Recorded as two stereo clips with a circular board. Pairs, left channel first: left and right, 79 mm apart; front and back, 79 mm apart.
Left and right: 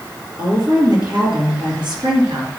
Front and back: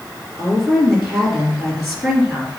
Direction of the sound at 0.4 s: 95° right.